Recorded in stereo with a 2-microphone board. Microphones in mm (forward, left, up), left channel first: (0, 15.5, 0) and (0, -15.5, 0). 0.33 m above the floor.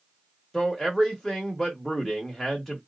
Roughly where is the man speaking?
Centre.